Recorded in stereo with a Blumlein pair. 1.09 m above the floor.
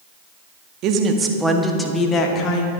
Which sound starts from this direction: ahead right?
A woman speaking, at 0.8 s.